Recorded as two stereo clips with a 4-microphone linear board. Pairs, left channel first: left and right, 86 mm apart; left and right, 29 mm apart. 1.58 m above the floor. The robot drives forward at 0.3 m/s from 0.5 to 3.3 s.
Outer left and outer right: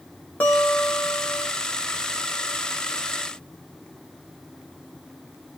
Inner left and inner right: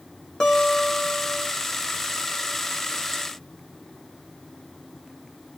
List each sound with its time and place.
0.4 s a guitar: 20° left (ahead or behind), 1.2 m; by 1.5 s 25° left (ahead or behind), 1.0 m